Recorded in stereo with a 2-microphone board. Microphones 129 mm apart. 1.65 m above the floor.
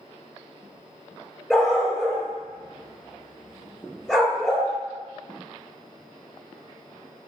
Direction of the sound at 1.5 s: 5° left (ahead or behind).